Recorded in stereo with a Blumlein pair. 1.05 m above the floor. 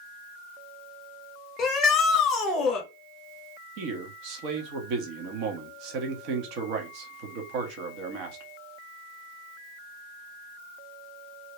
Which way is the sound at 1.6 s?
25° left.